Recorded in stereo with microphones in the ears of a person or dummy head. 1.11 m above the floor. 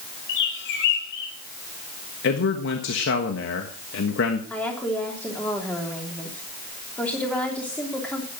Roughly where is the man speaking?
Left.